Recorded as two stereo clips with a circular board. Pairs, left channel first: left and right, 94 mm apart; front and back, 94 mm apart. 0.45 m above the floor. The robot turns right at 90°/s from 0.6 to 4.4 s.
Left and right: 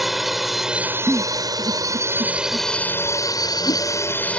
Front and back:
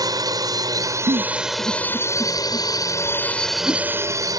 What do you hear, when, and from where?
0.0 s a drone: 175° right; by 4.4 s 165° left
1.1 s a giggle: 175° right; by 3.8 s 70° left